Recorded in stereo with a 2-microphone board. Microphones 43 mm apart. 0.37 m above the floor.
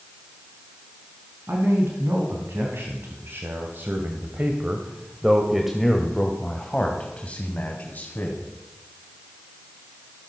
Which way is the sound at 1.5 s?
75° right (ahead or behind).